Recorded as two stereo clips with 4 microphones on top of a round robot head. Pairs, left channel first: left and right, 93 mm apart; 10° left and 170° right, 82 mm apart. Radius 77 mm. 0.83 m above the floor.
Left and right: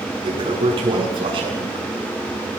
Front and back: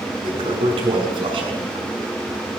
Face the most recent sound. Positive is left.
turn(degrees=-135)